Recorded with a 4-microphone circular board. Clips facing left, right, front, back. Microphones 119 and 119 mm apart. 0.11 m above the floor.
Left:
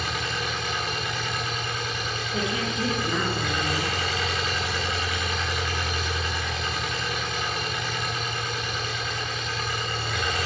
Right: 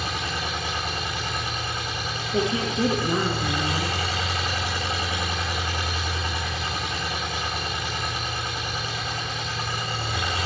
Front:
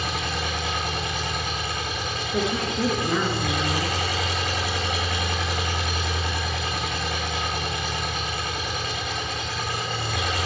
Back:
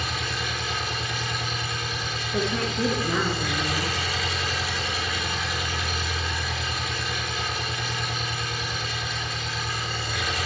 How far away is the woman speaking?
About 1.2 m.